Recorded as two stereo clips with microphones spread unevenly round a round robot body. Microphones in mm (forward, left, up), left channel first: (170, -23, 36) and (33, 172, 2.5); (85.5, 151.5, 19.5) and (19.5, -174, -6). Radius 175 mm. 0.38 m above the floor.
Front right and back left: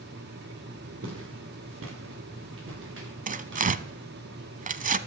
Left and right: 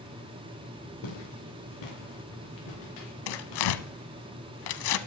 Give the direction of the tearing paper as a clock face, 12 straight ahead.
10 o'clock.